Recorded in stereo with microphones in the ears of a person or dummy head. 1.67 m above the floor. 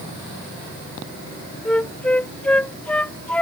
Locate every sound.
1.6 s a flute: 5° left (ahead or behind)